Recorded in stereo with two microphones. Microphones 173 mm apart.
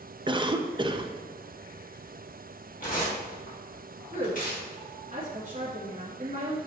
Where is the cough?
25° right (ahead or behind), 0.5 m.